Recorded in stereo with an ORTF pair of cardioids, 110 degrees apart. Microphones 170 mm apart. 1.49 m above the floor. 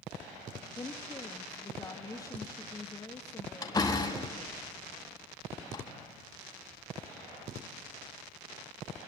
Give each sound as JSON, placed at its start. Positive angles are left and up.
{"t": 0.8, "sound": "a woman speaking", "azimuth_deg": 20, "distance_m": 3.0}
{"t": 3.6, "sound": "a door slam", "azimuth_deg": 20, "distance_m": 6.5}